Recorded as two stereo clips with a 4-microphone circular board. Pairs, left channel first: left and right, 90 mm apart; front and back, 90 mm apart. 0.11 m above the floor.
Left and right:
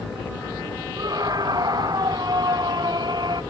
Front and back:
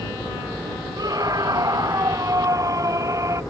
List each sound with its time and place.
1.0 s a scream: 135° right; by 3.4 s 125° right